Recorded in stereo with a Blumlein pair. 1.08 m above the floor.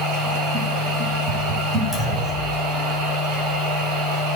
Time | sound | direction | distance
0.0 | a machine running | 35° right | 2.5 m
1.9 | a clunk | straight ahead | 2 m